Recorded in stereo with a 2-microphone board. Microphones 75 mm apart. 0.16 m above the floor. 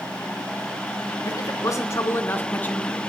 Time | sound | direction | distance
1.2 | a man speaking | 50° left (ahead or behind) | 1.8 m